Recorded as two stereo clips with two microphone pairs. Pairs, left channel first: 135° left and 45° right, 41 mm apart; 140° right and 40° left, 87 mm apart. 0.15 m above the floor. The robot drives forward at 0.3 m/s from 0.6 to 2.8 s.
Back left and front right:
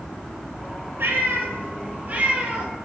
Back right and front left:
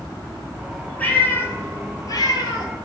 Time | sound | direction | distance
1.0 | a cat meowing | 70° right | 0.6 m